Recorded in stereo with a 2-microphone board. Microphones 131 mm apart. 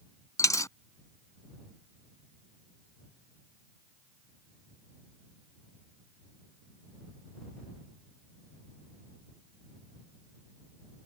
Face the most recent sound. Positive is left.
turn(degrees=25)  # may be behind; listen again after turning